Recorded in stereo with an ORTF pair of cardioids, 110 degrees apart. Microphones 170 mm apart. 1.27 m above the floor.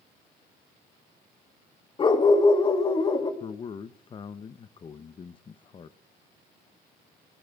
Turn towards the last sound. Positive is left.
turn(degrees=30)